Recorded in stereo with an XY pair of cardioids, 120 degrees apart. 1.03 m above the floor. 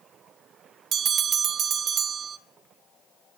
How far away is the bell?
About 0.6 m.